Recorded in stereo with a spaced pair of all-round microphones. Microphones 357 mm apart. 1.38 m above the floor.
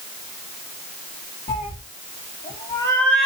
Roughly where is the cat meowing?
Left.